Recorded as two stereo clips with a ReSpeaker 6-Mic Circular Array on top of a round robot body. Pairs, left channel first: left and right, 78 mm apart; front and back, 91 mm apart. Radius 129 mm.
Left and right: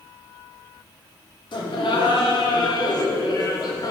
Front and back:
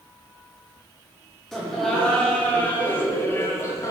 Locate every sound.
1.5 s laughter: 85° left, 3 m; by 3.9 s 55° left, 2.5 m